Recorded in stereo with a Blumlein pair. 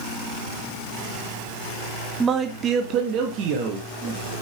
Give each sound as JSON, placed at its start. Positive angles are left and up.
{"t": 2.2, "sound": "a man speaking", "azimuth_deg": -15, "distance_m": 0.7}